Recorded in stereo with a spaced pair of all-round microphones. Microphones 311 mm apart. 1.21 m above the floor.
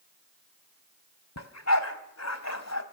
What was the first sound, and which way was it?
A dog barking, 55° left (ahead or behind).